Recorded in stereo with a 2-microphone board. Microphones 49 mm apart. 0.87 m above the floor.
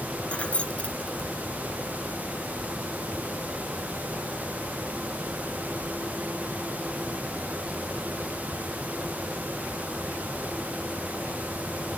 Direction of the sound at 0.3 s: 25° left (ahead or behind).